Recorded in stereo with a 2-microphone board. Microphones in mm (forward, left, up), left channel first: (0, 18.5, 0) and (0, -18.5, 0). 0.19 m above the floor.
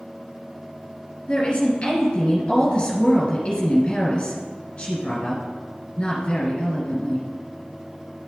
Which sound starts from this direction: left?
A woman speaking, at 1.3 s.